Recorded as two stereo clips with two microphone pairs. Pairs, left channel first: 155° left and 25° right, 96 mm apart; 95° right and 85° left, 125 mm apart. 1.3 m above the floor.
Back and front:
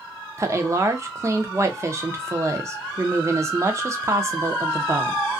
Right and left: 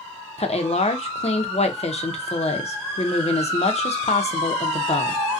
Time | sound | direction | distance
0.4 | a woman speaking | 80° right | 0.5 m